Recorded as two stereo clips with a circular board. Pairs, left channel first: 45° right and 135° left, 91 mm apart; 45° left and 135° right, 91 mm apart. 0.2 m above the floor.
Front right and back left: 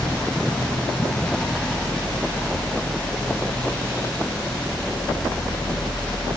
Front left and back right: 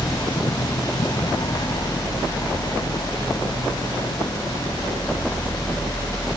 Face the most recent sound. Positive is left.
No sound to turn to.